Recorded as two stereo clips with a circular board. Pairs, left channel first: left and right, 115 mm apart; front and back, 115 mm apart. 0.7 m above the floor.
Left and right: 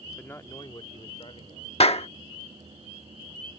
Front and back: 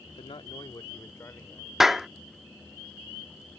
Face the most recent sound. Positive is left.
turn(degrees=95)